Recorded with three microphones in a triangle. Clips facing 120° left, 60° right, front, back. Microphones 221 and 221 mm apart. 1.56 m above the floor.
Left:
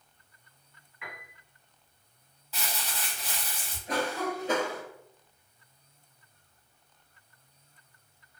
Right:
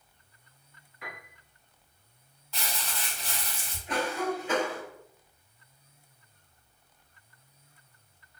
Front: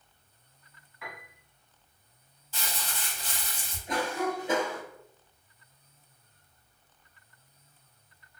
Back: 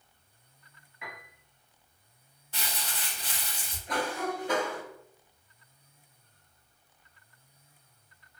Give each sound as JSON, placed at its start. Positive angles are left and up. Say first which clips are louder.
{"t": 1.0, "sound": "a piano", "louder": "right 2 dB, front 1 dB", "azimuth_deg": -110, "distance_m": 1.0}
{"t": 2.5, "sound": "crumpling", "louder": "even, front 1 dB", "azimuth_deg": -155, "distance_m": 0.8}
{"t": 3.9, "sound": "a cough", "louder": "right 1 dB, front 2 dB", "azimuth_deg": 70, "distance_m": 1.1}